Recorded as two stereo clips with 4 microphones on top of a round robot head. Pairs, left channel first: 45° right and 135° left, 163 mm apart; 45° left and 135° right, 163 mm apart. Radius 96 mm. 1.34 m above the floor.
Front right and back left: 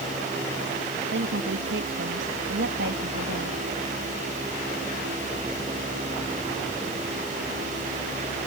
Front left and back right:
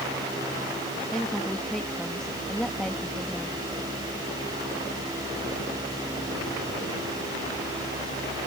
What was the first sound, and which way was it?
A woman speaking, 135° left.